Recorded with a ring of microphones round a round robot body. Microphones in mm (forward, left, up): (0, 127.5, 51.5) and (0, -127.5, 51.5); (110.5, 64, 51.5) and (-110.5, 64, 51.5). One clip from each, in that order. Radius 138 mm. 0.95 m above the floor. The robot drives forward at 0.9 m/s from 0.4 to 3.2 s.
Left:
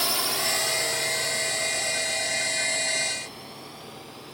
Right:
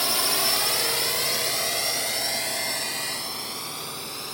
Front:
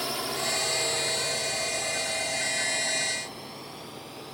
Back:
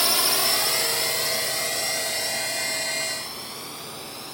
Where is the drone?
175° left; by 4.3 s 120° right.